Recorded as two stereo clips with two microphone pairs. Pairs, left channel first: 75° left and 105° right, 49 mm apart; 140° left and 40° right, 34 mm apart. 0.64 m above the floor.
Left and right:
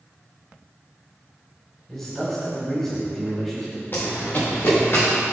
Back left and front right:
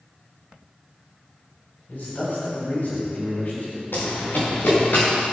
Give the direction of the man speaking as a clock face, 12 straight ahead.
7 o'clock.